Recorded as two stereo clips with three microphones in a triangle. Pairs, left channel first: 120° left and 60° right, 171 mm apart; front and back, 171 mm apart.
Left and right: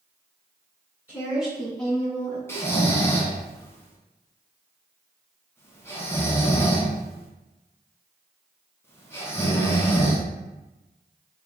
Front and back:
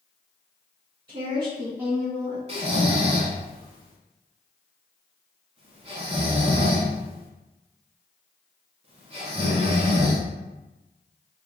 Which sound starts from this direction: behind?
Snoring, at 2.5 s.